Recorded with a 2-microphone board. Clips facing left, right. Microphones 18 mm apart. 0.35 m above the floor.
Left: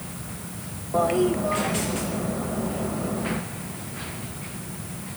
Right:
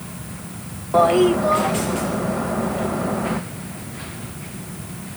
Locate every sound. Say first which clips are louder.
0.9 s a toilet flushing: right 7 dB; 45° right (ahead or behind), 0.6 m